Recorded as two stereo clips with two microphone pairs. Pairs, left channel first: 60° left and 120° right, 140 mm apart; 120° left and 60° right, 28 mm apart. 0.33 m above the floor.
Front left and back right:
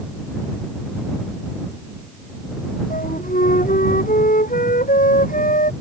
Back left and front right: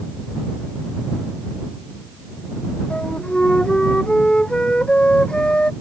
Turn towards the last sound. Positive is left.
turn(degrees=70)